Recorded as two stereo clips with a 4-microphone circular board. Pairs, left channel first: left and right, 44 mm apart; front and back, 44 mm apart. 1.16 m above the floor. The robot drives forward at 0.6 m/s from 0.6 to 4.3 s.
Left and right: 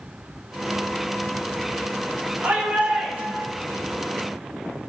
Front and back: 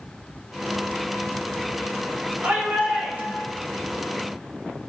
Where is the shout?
135° right, 5 m; by 3.5 s 140° right, 5.5 m.